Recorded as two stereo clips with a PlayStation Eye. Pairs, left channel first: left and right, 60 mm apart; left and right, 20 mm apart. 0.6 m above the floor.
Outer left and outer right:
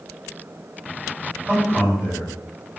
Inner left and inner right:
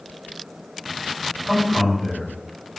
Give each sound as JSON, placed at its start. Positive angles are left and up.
{"t": 1.4, "sound": "a man speaking", "side_deg": -40, "distance_m": 1.9}